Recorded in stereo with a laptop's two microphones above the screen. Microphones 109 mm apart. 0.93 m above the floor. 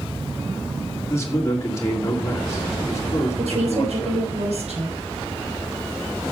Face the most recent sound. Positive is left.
turn(degrees=-75)  # may be behind; listen again after turning